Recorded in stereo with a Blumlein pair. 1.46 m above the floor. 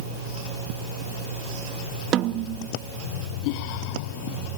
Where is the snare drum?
30° right, 0.8 m.